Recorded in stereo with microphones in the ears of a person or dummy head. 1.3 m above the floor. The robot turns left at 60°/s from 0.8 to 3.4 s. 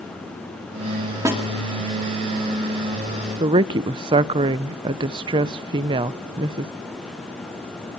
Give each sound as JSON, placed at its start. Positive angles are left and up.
{"t": 1.2, "sound": "a snare drum", "side_deg": -15, "distance_m": 2.0}
{"t": 3.4, "sound": "a woman speaking", "side_deg": -25, "distance_m": 0.5}